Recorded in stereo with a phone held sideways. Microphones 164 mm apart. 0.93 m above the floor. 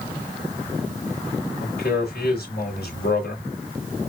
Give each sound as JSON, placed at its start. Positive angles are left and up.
{"t": 1.6, "sound": "a man speaking", "side_deg": 75, "distance_m": 3.5}